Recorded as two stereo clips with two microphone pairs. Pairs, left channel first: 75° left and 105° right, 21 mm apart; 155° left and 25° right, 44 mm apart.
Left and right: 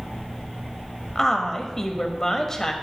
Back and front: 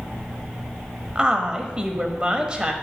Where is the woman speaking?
15° left, 1.0 m.